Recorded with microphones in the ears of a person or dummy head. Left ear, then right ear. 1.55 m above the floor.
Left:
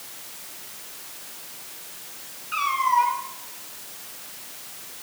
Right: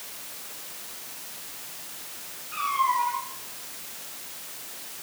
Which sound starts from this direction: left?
A cat meowing, at 2.5 s.